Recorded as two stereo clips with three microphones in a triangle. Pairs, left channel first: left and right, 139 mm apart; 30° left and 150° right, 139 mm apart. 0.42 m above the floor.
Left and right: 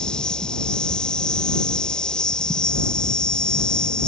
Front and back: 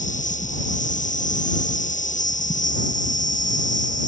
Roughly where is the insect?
Ahead.